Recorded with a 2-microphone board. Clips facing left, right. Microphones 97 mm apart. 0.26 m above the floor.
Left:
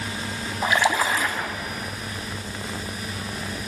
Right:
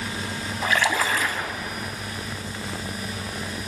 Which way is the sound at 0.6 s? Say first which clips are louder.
Left 2 dB; 20° left (ahead or behind).